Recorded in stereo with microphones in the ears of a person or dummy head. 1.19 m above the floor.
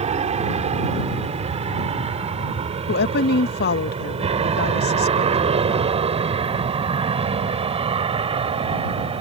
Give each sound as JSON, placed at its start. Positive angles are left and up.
{"t": 0.0, "sound": "an aircraft", "side_deg": -30}
{"t": 2.9, "sound": "a woman speaking", "side_deg": 55}